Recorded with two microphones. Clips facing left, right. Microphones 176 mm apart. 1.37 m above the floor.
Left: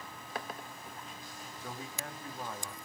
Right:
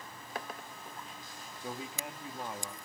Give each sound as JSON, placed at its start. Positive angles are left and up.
{"t": 1.6, "sound": "a man speaking", "side_deg": -15, "distance_m": 3.5}